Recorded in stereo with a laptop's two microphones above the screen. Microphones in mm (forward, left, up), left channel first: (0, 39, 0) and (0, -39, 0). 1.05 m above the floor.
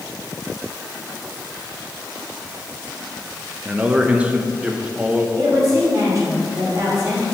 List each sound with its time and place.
3.6 s a man speaking: 20° right (ahead or behind), 0.6 m
5.4 s a woman speaking: 50° right (ahead or behind), 2.5 m